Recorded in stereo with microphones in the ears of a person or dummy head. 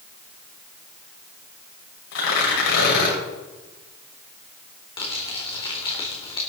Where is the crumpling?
15° left (ahead or behind), 4 m.